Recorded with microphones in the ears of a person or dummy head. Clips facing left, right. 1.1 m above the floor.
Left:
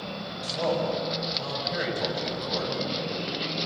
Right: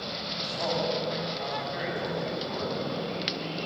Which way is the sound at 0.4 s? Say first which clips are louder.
Left 3 dB; 80° left.